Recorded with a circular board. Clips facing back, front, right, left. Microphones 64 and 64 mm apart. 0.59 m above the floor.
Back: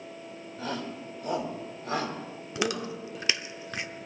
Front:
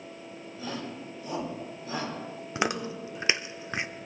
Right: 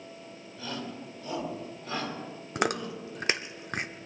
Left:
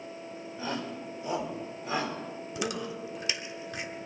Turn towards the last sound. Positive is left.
turn(degrees=-60)